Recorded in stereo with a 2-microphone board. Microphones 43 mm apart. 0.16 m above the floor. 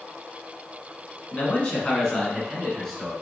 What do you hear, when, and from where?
1.3 s a man speaking: 35° left (ahead or behind), 1.3 m; by 3.1 s centre (ahead or behind), 2.0 m